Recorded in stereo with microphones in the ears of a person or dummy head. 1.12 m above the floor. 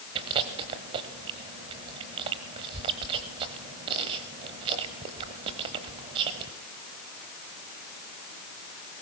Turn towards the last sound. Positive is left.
turn(degrees=-25)  # may be behind; listen again after turning